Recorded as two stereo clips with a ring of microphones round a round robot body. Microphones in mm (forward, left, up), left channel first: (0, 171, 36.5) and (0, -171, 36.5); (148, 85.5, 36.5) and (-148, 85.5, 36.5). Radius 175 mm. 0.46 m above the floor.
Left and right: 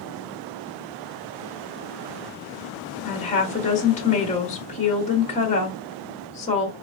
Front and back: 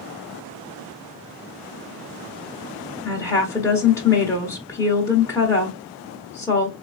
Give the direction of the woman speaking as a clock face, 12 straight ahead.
10 o'clock.